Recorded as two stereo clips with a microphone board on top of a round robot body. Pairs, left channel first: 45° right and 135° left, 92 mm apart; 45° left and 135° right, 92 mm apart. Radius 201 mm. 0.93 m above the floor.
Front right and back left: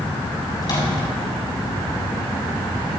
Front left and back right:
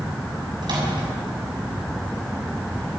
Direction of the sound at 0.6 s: 95° right.